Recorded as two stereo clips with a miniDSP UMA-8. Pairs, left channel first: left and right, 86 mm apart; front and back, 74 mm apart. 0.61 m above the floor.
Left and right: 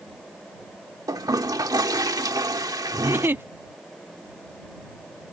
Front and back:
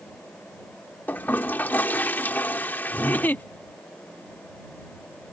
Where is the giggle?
50° right.